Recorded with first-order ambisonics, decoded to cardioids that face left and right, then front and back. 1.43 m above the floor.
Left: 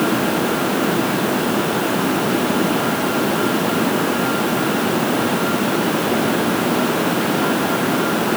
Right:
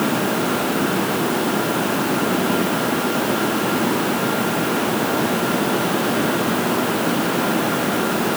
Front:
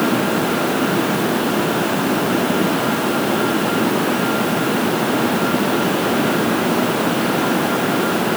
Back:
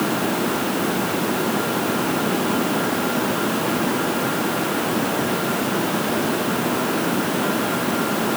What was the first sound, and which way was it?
Only background noise.